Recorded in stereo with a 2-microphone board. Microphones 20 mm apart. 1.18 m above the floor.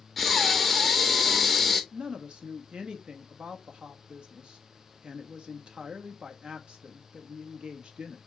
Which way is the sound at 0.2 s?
Centre (ahead or behind).